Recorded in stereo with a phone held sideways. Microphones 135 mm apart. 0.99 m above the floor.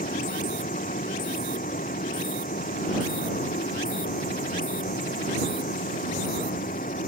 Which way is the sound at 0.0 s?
85° left.